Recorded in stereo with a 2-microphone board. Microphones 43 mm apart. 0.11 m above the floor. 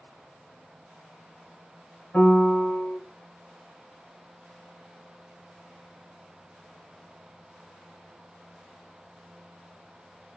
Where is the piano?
30° left (ahead or behind), 1.1 m.